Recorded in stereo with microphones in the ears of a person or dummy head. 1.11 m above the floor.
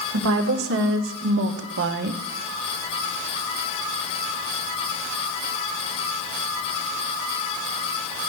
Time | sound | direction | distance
0.1 | a woman speaking | 75° right (ahead or behind) | 2.0 m